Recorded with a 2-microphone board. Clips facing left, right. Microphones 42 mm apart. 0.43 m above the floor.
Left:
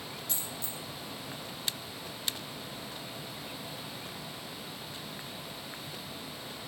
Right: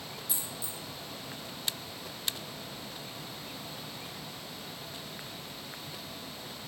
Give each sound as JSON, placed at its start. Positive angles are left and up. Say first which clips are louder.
{"t": 0.3, "sound": "a dropped coin", "louder": "left 1 dB", "side_deg": -5, "distance_m": 1.5}